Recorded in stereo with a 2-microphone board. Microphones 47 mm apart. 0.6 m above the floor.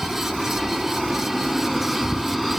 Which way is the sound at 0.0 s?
Centre (ahead or behind).